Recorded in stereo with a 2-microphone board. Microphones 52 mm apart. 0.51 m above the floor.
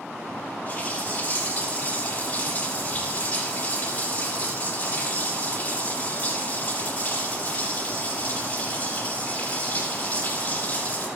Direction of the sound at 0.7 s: 25° left (ahead or behind).